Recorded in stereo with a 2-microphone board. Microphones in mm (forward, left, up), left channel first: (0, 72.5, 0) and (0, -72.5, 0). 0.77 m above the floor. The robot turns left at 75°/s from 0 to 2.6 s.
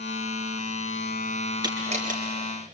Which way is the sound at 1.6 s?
30° right (ahead or behind).